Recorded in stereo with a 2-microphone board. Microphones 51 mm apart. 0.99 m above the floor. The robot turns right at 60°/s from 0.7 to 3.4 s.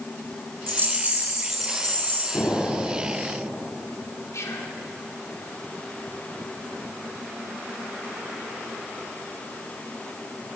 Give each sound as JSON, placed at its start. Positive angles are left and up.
{"t": 0.7, "sound": "a rattle", "azimuth_deg": -55, "distance_m": 3.0}
{"t": 2.3, "sound": "an explosion", "azimuth_deg": 110, "distance_m": 3.0}
{"t": 4.3, "sound": "whispering", "side_deg": 80, "distance_m": 2.5}